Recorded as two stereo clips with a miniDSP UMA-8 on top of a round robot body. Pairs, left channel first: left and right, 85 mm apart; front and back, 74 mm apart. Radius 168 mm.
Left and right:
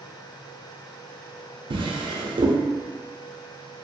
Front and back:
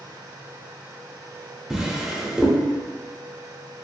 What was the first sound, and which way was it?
A drawer, 100° right.